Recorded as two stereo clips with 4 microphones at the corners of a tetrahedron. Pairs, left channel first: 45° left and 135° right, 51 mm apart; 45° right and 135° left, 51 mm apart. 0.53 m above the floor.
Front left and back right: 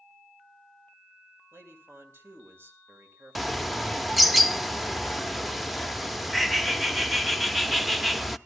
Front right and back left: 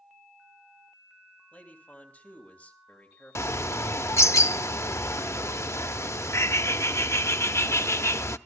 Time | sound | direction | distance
1.5 | a man speaking | 105° right | 2.5 m
3.4 | a bird | 45° right | 0.6 m